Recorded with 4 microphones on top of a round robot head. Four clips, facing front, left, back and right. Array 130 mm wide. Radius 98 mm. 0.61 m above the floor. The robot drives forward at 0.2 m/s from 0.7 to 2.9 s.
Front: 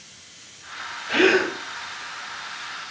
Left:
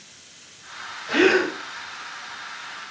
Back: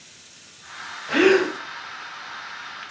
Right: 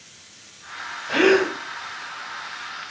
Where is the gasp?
145° left, 1.2 m.